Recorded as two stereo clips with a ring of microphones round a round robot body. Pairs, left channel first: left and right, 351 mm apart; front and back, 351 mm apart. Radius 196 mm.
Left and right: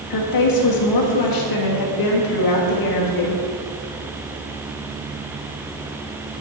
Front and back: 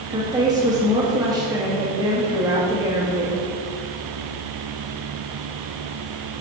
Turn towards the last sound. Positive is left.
turn(degrees=100)